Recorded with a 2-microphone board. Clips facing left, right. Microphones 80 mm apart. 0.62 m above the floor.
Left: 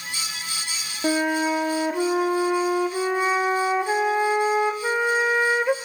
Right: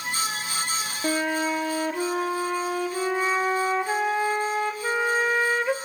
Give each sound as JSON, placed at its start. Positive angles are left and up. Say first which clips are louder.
{"t": 1.0, "sound": "a flute", "louder": "left 4 dB", "side_deg": 15, "distance_m": 0.6}